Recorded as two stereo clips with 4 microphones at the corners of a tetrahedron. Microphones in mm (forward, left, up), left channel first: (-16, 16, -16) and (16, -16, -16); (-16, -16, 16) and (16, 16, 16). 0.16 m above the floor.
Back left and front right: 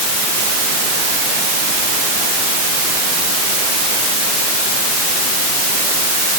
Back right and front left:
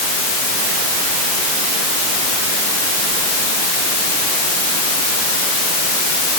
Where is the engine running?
No engine running in this recording.